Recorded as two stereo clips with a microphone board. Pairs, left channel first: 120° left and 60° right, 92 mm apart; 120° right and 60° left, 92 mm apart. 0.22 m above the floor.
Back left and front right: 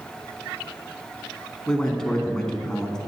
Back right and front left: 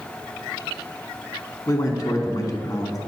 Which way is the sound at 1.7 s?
160° right.